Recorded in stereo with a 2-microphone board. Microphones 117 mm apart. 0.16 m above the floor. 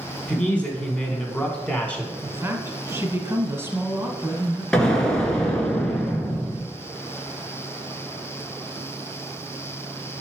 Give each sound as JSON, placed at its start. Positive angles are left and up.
{"t": 0.3, "sound": "a man speaking", "side_deg": 10, "distance_m": 1.0}
{"t": 2.2, "sound": "a woman speaking", "side_deg": -20, "distance_m": 1.2}
{"t": 4.7, "sound": "an explosion", "side_deg": 5, "distance_m": 1.4}